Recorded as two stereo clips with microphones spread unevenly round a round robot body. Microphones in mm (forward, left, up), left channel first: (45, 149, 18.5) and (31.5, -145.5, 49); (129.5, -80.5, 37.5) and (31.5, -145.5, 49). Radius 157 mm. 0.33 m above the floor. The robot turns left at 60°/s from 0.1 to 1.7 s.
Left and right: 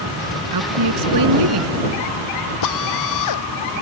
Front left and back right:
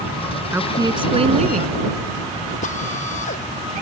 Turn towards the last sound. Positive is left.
turn(degrees=65)